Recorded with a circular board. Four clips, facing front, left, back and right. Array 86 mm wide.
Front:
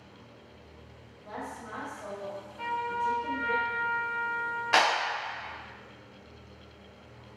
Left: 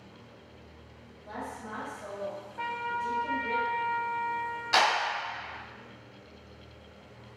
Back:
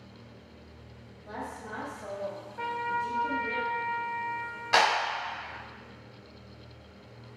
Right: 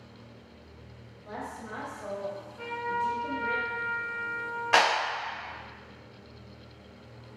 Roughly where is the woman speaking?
Ahead right.